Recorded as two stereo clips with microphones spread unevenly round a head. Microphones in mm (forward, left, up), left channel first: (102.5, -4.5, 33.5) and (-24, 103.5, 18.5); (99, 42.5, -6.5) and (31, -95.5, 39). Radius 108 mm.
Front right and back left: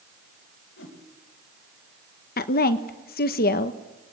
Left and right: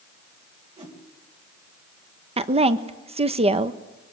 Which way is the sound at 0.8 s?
75° right.